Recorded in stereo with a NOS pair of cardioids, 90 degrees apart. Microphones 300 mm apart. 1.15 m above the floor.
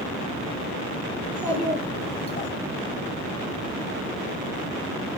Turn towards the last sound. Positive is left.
turn(degrees=30)